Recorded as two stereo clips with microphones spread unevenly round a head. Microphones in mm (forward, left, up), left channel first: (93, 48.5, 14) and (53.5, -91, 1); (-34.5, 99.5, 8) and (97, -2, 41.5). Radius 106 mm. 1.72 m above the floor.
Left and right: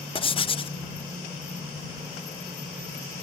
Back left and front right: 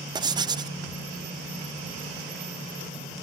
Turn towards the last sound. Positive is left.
turn(degrees=25)